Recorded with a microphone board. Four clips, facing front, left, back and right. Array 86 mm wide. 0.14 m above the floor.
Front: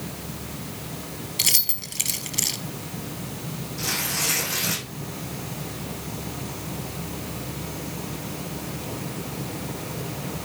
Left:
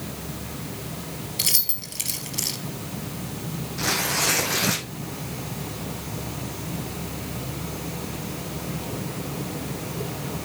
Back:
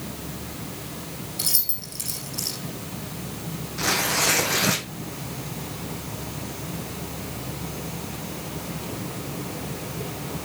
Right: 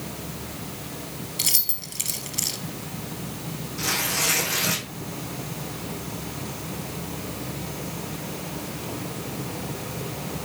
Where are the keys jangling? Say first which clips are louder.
Left 1 dB, front 3 dB; 10° left, 2 m.